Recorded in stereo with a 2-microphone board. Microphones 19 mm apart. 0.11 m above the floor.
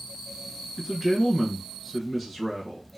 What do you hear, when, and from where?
0.8 s a man speaking: centre (ahead or behind), 1.1 m